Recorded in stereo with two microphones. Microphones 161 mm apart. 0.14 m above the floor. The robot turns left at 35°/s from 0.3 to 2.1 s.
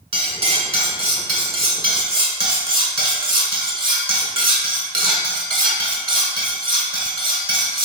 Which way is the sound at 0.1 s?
65° right.